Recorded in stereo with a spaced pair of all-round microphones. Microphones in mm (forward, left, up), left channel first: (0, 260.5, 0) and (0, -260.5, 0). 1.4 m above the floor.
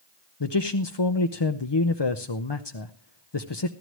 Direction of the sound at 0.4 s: 50° left (ahead or behind).